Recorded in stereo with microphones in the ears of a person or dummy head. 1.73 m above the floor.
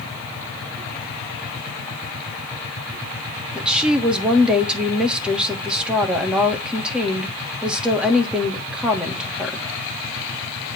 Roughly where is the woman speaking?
Centre.